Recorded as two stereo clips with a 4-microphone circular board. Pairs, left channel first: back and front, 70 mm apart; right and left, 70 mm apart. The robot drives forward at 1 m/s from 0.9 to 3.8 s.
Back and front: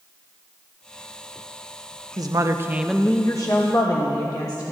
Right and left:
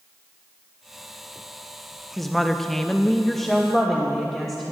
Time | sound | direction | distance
2.2 | a woman speaking | 5° right | 0.9 m